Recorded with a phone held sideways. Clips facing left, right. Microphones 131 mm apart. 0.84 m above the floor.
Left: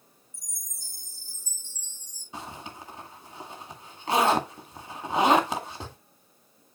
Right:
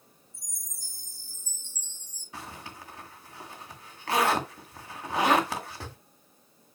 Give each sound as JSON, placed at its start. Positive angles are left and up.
{"t": 0.3, "sound": "a chime", "side_deg": -70, "distance_m": 6.5}
{"t": 2.3, "sound": "a zipper", "side_deg": 20, "distance_m": 2.0}